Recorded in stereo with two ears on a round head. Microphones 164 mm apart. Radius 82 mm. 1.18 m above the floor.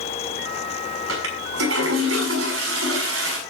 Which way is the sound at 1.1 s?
85° right.